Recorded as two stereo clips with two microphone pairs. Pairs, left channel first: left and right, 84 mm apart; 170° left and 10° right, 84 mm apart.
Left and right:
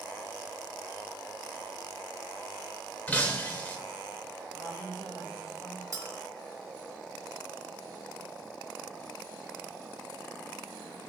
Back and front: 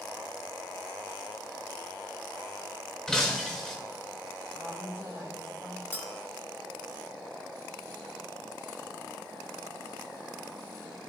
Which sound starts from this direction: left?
Breaking glass, at 3.1 s.